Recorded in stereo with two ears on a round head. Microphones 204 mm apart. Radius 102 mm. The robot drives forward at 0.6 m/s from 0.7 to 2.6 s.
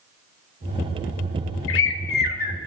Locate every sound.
1.7 s a bird: 60° left (ahead or behind), 0.7 m; by 2.6 s 35° left (ahead or behind), 1.1 m